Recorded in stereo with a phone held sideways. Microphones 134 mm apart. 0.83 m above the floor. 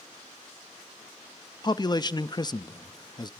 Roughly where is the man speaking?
Left.